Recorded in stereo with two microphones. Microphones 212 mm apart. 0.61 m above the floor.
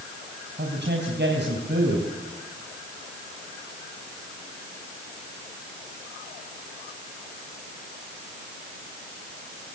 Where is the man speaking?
55° right (ahead or behind), 4 m.